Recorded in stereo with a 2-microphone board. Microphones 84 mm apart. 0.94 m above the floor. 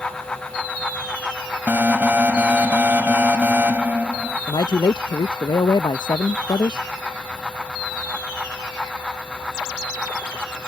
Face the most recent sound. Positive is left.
turn(degrees=60)  # may be behind; listen again after turning